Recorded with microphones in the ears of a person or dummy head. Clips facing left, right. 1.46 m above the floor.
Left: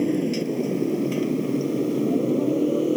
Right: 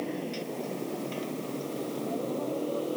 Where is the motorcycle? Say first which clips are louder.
Left 11 dB; 45° left (ahead or behind).